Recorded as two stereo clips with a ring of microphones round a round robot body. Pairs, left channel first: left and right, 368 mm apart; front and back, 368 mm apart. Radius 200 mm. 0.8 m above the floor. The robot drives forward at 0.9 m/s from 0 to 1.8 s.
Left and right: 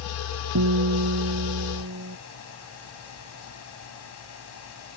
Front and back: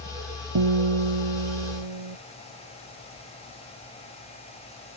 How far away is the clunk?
No clunk in this recording.